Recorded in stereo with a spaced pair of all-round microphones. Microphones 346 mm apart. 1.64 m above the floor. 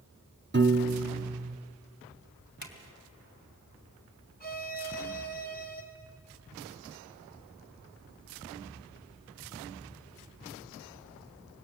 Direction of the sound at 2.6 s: 55° left (ahead or behind).